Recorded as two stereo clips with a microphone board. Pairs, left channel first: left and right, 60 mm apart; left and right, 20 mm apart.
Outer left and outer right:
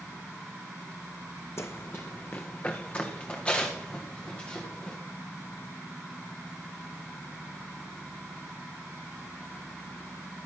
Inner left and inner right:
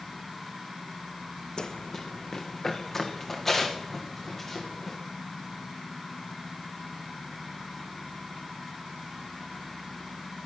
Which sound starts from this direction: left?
Running footsteps, at 1.6 s.